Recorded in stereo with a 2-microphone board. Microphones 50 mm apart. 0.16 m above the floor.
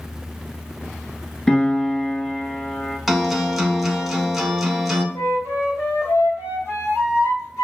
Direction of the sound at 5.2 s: 65° left (ahead or behind).